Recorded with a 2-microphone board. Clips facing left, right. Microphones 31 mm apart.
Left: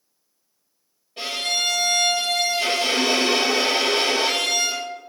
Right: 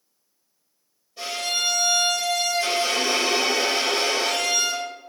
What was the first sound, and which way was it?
A violin, 60° left (ahead or behind).